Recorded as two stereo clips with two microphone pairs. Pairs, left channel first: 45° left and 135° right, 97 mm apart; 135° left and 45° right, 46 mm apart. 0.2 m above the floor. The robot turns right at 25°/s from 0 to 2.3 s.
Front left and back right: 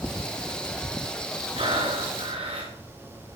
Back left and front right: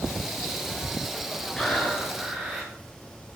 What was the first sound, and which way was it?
Breathing, 150° right.